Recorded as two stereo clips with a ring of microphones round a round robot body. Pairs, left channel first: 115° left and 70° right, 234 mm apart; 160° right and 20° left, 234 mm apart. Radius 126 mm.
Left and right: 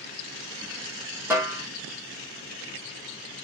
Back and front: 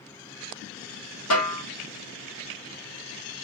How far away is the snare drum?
About 3.5 m.